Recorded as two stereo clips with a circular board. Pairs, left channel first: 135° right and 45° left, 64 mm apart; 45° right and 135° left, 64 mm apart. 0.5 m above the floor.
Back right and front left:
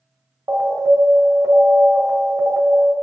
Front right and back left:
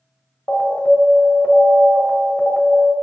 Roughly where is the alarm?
Ahead.